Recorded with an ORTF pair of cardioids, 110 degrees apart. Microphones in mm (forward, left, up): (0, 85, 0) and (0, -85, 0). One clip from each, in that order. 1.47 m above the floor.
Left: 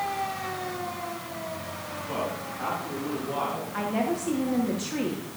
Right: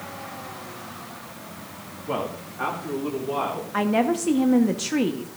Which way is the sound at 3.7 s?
45° right.